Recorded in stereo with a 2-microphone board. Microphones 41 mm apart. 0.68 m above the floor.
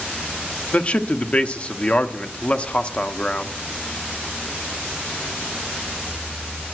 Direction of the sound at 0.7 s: 30° left (ahead or behind).